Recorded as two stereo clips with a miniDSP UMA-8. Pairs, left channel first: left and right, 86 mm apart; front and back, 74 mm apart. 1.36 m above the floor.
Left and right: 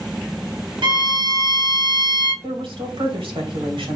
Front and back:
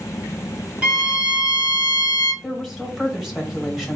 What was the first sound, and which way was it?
A violin, 105° right.